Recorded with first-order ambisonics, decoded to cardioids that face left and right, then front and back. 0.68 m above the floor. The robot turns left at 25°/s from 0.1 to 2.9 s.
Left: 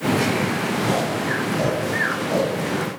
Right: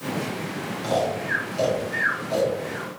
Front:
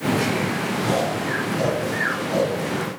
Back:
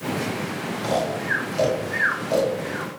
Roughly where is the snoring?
Behind right.